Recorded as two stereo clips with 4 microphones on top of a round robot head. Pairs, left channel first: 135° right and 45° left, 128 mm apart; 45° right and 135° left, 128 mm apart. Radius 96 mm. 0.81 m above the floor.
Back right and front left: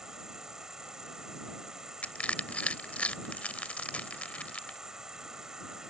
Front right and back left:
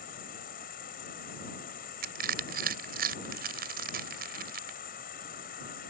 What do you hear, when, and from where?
0.0 s an insect: 45° right
2.0 s crushing: 145° left